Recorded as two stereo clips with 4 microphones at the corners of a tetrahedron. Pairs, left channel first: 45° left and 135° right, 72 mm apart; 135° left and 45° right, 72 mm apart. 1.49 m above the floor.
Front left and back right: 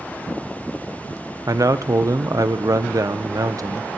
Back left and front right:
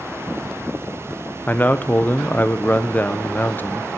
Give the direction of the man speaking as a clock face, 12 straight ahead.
5 o'clock.